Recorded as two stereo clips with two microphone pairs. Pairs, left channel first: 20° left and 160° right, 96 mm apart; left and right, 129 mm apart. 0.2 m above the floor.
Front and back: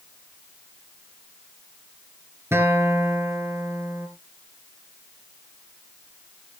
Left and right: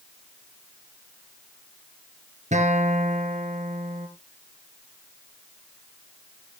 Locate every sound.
2.5 s a guitar: 100° right, 2 m